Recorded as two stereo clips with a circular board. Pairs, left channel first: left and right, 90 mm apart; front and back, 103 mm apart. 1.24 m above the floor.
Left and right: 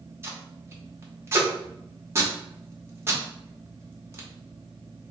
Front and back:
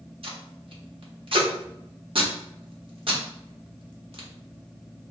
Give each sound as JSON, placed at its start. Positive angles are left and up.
{"t": 0.2, "sound": "tape being pulled", "azimuth_deg": -150, "distance_m": 1.0}